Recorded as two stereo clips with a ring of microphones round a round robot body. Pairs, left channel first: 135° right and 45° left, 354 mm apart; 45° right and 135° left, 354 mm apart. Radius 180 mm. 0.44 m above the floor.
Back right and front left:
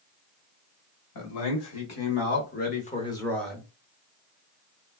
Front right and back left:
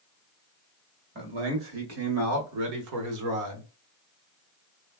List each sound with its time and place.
1.1 s a man speaking: 170° right, 1.8 m; by 3.7 s 125° left, 1.1 m